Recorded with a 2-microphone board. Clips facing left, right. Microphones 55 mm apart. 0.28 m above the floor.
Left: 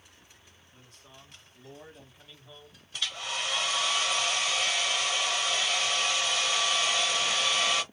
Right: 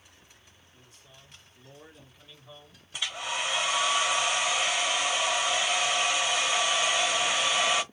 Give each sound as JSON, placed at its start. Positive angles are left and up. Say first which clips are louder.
{"t": 0.7, "sound": "a man speaking", "louder": "left 3 dB", "side_deg": 55, "distance_m": 3.0}
{"t": 2.9, "sound": "a hair dryer", "louder": "right 2 dB", "side_deg": -15, "distance_m": 1.0}